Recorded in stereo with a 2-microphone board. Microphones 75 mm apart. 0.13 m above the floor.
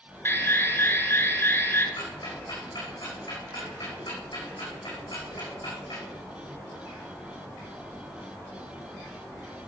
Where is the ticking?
75° left (ahead or behind), 6 m.